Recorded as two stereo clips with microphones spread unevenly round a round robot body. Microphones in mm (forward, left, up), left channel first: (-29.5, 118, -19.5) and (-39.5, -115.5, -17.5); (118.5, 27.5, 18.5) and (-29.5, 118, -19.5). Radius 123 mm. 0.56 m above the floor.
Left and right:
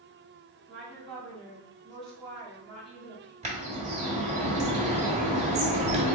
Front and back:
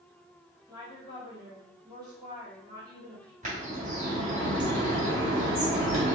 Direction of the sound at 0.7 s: 170° left.